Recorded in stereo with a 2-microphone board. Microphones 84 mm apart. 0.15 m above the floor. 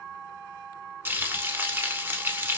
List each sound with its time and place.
1.1 s frying: 25° right (ahead or behind), 0.7 m